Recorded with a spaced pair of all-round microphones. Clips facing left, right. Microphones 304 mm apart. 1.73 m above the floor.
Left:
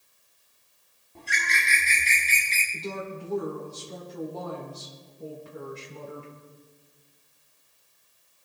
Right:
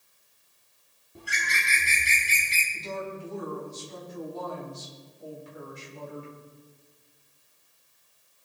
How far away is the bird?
About 4 m.